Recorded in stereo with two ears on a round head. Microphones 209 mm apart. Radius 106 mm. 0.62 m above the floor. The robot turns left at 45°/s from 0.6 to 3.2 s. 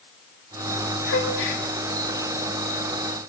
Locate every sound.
1.1 s a gasp: 60° left (ahead or behind), 2 m